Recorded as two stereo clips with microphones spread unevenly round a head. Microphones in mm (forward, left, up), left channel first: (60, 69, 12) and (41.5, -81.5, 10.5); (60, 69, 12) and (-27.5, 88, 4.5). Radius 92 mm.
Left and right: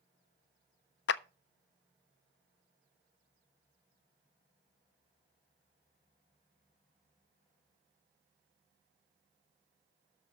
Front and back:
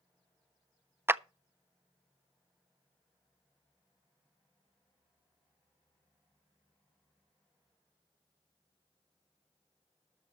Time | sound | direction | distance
1.1 | a clap | 100° left | 0.6 m